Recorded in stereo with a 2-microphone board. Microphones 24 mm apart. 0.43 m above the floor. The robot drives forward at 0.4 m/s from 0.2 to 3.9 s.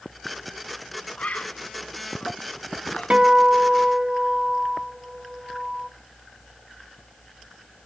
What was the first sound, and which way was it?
A bird, 80° left.